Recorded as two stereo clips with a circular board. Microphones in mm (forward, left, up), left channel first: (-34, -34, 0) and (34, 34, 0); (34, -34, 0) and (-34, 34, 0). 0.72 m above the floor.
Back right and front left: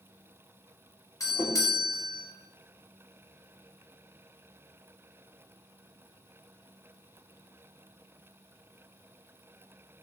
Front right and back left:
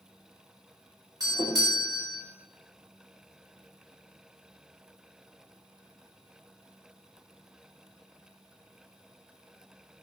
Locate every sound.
1.2 s a doorbell: 175° left, 2.5 m